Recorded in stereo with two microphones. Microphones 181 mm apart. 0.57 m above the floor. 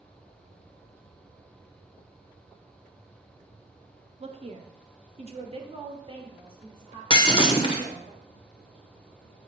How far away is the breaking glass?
About 1.0 m.